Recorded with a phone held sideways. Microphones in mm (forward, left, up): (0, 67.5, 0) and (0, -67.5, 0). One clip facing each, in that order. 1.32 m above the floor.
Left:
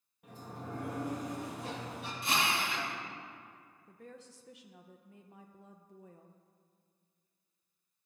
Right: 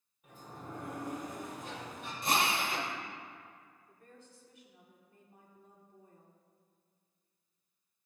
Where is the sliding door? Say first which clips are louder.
Left 3 dB; 75° left (ahead or behind), 1.9 m.